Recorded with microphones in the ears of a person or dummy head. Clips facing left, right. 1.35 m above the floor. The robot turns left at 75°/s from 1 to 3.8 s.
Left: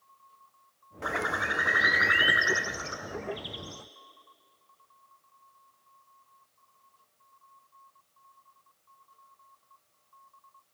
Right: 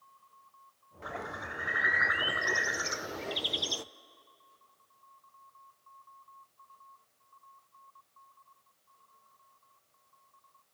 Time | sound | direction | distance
1.0 | a bird | 120° left | 0.7 m